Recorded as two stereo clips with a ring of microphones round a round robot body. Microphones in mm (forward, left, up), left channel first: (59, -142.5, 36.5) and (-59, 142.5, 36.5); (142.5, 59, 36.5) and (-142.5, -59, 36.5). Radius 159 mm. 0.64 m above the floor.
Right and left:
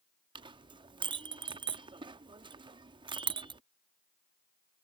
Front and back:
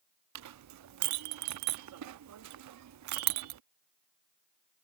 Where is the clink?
175° right.